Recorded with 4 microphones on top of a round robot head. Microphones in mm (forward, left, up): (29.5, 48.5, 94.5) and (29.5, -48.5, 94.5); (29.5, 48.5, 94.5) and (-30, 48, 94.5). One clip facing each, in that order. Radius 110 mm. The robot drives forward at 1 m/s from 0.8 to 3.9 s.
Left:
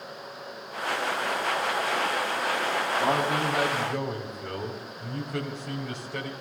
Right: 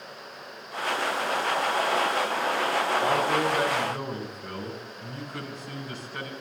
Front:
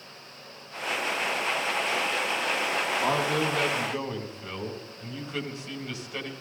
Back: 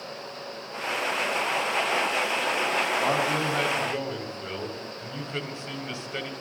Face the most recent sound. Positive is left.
turn(degrees=120)